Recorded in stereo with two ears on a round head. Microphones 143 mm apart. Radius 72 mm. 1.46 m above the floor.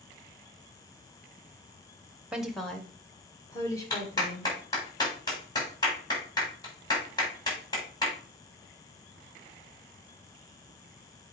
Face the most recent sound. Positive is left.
turn(degrees=25)  # may be behind; listen again after turning